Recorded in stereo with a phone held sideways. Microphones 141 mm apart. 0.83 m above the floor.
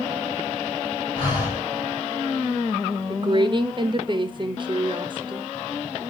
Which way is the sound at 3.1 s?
35° right (ahead or behind).